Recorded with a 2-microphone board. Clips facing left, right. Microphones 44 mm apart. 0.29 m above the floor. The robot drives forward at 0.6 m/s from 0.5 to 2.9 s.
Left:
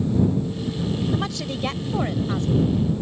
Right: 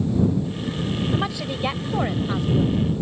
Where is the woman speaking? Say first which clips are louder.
Right 1 dB; 15° right (ahead or behind); by 3.0 s 10° right (ahead or behind).